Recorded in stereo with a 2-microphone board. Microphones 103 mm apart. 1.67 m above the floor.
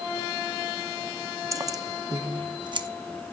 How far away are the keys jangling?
About 0.8 m.